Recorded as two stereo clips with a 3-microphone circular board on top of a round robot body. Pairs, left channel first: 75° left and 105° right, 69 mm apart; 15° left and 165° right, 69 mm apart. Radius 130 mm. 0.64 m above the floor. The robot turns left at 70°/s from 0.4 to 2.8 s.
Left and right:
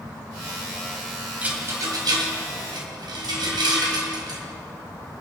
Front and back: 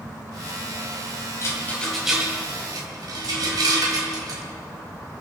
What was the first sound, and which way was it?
A rattle, 35° right.